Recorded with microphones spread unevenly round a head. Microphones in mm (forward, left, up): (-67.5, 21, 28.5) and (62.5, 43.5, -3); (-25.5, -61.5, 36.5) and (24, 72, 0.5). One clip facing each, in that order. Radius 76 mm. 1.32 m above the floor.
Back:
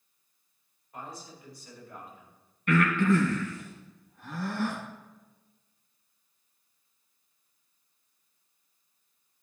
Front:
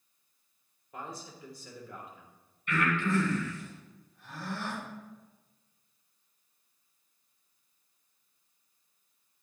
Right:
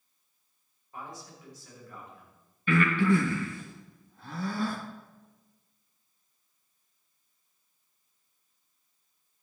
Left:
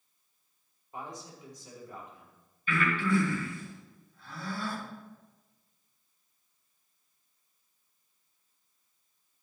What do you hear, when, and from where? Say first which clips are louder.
0.9 s a man speaking: even, left 1 dB; 5° right, 3.5 m
2.7 s breathing: back 6 dB, right 5 dB; 135° right, 2.5 m